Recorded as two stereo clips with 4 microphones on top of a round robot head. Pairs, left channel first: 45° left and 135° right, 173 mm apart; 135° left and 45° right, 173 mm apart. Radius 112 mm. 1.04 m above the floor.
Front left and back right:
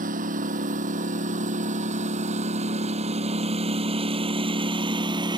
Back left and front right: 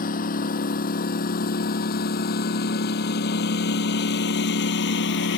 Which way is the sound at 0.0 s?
Straight behind.